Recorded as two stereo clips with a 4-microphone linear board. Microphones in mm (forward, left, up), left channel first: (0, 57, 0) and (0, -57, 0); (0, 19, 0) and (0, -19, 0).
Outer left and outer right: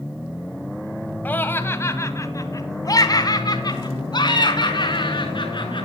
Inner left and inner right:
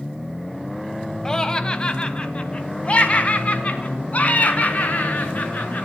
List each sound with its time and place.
1.2 s laughter: 15° left (ahead or behind), 2 m; by 5.8 s 45° left (ahead or behind), 5 m